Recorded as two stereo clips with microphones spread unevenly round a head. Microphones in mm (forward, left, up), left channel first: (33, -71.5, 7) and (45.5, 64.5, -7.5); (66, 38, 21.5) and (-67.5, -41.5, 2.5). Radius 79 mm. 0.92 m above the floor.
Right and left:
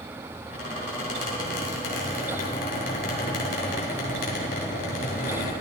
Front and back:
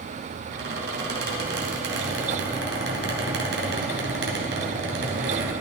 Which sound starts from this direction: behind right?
A squeak, at 0.5 s.